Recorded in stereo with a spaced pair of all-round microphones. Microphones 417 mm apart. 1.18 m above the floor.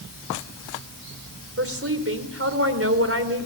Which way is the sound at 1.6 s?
30° right (ahead or behind).